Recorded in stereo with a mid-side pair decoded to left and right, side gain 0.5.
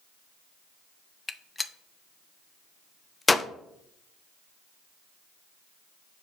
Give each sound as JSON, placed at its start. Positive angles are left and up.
{"t": 1.3, "sound": "a gunshot", "azimuth_deg": 20, "distance_m": 0.6}